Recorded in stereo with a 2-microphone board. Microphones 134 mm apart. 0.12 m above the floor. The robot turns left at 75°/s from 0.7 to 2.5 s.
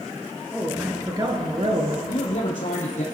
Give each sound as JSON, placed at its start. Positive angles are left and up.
{"t": 0.5, "sound": "a man speaking", "azimuth_deg": -10, "distance_m": 2.0}
{"t": 2.1, "sound": "a man speaking", "azimuth_deg": 135, "distance_m": 3.0}